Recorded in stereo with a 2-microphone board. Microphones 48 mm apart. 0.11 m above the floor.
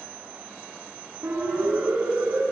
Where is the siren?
60° right (ahead or behind), 10 m.